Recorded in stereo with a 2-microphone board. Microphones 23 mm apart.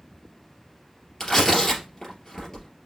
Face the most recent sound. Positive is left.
turn(degrees=20)  # may be behind; listen again after turning